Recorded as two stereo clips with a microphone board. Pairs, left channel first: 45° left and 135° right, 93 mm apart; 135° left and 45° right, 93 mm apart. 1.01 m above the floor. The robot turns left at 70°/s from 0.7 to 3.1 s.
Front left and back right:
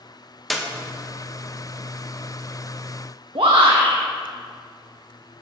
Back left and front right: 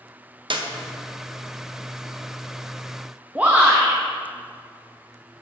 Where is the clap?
45° right, 0.9 m.